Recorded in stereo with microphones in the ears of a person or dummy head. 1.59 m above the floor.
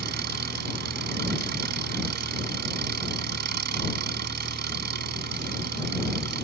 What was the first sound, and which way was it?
An engine running, 55° right (ahead or behind).